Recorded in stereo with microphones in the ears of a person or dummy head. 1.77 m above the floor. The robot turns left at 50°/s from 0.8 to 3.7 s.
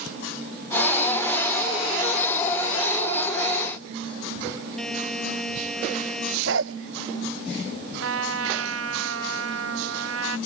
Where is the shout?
I don't hear a shout.